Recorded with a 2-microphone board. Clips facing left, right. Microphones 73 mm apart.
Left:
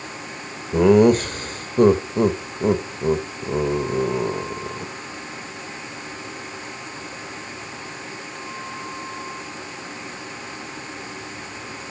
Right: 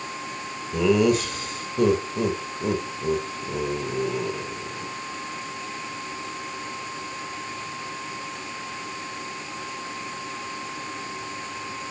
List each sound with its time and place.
0.7 s laughter: 45° left (ahead or behind), 1.4 m